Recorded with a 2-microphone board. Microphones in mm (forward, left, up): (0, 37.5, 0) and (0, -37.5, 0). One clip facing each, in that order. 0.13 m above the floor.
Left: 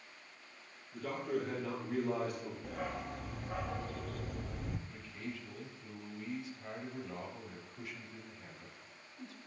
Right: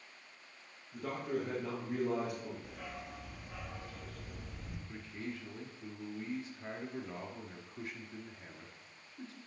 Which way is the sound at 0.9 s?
20° right (ahead or behind).